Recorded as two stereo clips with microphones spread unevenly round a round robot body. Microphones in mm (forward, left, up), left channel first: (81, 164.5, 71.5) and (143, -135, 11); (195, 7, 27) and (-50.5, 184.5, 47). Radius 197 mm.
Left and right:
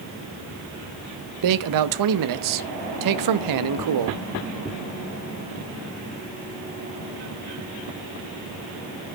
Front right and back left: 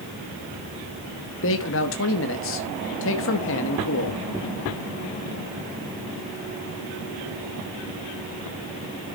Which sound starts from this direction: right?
A man speaking, at 1.4 s.